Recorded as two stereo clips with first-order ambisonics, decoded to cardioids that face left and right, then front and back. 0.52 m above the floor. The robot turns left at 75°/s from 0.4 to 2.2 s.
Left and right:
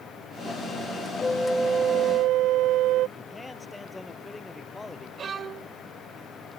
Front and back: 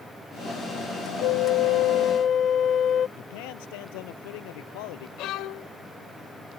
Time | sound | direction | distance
1.2 | a flute | 20° left | ?
3.2 | a man speaking | 5° left | ?
5.2 | a violin | 30° right | ?